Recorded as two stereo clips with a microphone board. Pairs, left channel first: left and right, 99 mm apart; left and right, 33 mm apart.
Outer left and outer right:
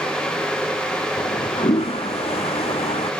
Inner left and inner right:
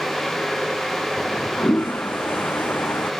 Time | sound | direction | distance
1.2 | a toilet flushing | 85° left | ?